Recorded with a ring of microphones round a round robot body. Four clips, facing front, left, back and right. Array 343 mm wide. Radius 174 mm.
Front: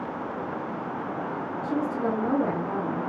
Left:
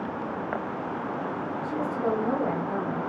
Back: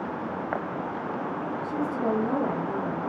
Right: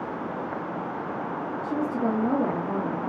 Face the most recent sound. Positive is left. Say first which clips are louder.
# right 2 dB, front 1 dB
turn(degrees=-65)